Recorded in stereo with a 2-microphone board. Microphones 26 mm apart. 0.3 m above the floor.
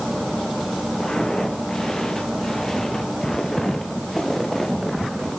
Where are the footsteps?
25° left (ahead or behind), 6 m; by 5.3 s 5° left (ahead or behind), 4 m.